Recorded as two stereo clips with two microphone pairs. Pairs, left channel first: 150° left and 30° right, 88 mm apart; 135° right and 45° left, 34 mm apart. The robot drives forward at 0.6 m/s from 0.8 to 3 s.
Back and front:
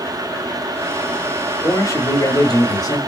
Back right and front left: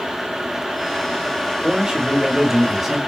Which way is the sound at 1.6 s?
110° left.